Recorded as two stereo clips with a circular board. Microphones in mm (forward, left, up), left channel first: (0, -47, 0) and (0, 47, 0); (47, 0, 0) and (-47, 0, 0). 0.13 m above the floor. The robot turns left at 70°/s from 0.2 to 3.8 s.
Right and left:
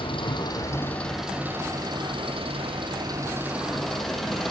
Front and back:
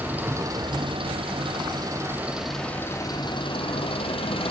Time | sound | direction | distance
0.0 | an engine running | 110° right | 5 m